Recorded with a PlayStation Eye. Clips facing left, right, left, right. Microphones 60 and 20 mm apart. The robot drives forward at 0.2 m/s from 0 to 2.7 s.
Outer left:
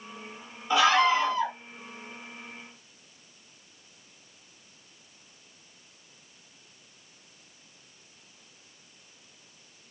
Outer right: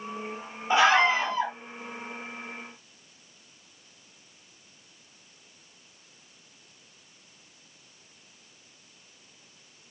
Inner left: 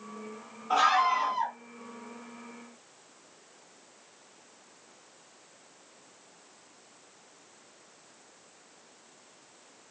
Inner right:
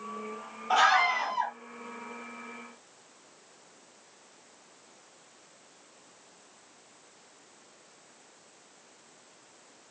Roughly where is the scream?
Right.